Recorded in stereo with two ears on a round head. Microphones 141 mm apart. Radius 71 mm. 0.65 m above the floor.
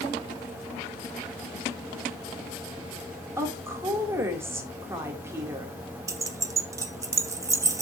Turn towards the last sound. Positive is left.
turn(degrees=-20)  # may be behind; listen again after turning